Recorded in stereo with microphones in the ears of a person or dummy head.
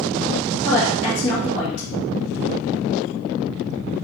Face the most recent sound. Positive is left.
turn(degrees=75)  # may be behind; listen again after turning